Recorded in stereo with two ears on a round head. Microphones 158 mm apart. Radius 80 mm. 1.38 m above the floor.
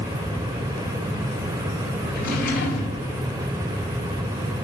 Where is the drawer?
55° left (ahead or behind), 4 m.